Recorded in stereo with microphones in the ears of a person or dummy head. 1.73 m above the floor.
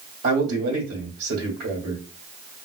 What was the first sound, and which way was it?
A man speaking, 65° right (ahead or behind).